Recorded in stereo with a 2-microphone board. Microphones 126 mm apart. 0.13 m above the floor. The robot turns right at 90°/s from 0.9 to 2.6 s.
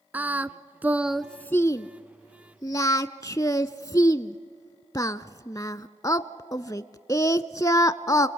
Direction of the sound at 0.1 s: 15° right (ahead or behind).